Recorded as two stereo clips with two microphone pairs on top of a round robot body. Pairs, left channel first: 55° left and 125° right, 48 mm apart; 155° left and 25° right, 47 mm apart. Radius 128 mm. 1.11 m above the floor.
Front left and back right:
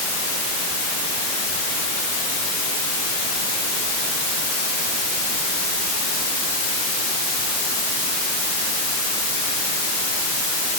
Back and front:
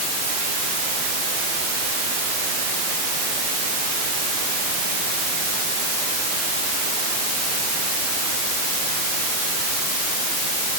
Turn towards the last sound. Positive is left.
No sound to turn to.